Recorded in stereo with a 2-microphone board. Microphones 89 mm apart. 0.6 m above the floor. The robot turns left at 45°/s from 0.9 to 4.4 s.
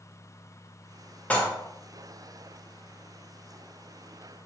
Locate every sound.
1.3 s dishes clattering: 15° left (ahead or behind), 0.6 m; by 1.5 s 10° left (ahead or behind), 0.6 m